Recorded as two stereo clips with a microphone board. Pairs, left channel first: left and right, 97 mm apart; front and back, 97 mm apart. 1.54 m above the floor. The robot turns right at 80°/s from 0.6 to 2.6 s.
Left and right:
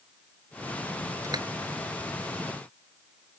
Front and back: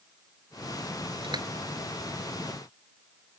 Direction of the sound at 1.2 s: 145° right.